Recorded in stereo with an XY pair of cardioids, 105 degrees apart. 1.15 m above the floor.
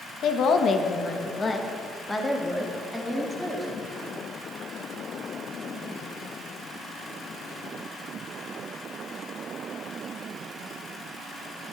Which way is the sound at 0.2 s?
65° left.